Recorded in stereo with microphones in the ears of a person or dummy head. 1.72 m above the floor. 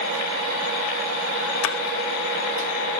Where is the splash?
80° left, 1.1 m.